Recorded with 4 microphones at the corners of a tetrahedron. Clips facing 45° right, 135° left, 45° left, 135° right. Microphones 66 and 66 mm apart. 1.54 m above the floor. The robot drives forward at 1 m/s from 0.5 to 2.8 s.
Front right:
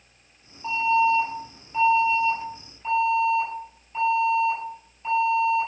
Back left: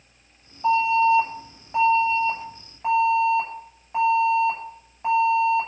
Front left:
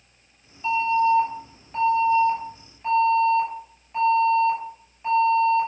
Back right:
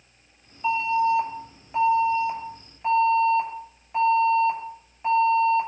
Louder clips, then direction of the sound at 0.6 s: Back left 3 dB, front left 2 dB; 145° left.